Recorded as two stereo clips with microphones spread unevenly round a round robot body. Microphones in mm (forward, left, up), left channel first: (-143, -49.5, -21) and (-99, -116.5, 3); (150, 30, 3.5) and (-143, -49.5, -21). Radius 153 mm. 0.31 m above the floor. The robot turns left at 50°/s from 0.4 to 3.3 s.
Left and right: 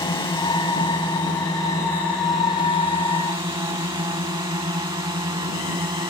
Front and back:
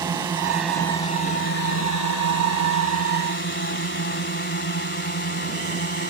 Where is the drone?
120° left; by 6.1 s 40° right.